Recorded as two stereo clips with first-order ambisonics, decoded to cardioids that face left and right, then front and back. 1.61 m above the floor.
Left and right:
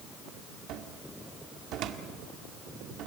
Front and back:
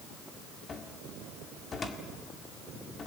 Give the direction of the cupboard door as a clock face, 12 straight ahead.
2 o'clock.